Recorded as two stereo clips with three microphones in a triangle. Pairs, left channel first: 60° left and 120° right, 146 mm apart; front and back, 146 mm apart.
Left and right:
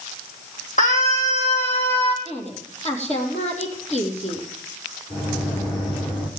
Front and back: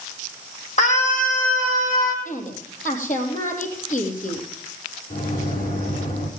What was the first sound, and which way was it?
A scream, 35° left.